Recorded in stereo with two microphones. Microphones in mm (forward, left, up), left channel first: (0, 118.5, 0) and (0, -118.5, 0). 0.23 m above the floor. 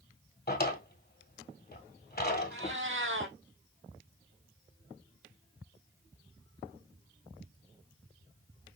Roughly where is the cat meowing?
Right.